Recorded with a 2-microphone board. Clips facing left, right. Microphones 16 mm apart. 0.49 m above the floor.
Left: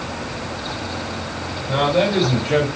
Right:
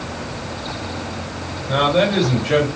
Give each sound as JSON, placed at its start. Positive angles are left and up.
{"t": 1.7, "sound": "a man speaking", "side_deg": -55, "distance_m": 1.8}